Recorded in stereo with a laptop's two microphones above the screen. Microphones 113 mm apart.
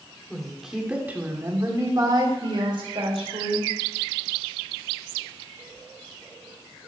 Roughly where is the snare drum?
I don't hear a snare drum.